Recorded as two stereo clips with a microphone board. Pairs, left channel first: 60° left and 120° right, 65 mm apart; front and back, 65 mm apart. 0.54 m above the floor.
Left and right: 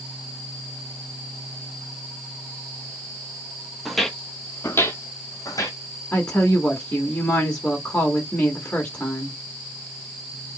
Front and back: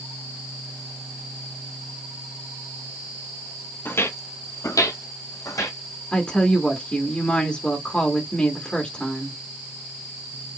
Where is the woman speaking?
40° left, 1.3 m.